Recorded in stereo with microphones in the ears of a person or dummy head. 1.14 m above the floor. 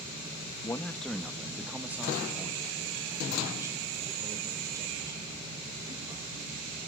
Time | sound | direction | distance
0.6 | a man speaking | 10° left (ahead or behind) | 0.8 m